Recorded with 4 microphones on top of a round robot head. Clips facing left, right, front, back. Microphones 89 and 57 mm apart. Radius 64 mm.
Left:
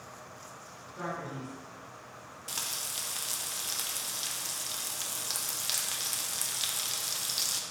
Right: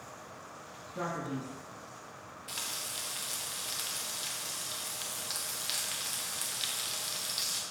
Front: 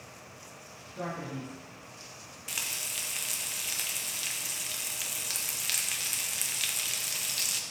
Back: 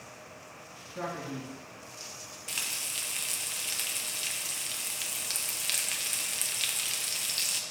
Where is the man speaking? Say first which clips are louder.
Right 2 dB, back 1 dB; 120° right, 3 m.